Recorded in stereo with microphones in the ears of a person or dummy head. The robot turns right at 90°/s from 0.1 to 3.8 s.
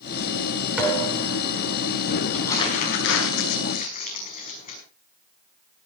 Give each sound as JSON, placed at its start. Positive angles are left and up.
{"t": 0.8, "sound": "a thud", "azimuth_deg": -175, "distance_m": 7.5}
{"t": 2.3, "sound": "crumpling", "side_deg": 5, "distance_m": 5.5}